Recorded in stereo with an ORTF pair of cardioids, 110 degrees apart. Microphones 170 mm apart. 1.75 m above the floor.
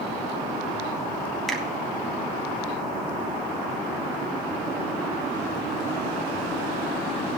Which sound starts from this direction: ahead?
A finger snap, at 1.5 s.